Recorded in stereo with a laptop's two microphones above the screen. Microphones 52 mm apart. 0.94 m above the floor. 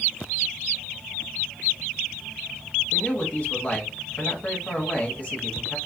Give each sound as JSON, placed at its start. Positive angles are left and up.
{"t": 2.9, "sound": "a man speaking", "side_deg": 35, "distance_m": 1.4}